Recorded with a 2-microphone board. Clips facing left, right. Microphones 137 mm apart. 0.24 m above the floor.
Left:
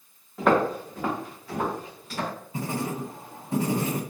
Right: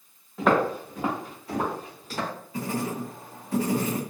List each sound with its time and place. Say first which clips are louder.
0.4 s footsteps: left 1 dB; centre (ahead or behind), 1.8 m; by 2.3 s 40° right (ahead or behind), 2.5 m
2.5 s writing: right 1 dB; 25° left (ahead or behind), 1.0 m